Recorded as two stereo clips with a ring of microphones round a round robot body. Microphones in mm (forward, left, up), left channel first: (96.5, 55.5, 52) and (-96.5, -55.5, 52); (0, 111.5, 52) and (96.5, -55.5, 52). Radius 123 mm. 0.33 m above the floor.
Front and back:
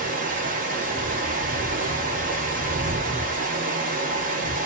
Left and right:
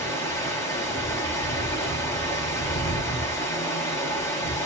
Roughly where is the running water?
Behind.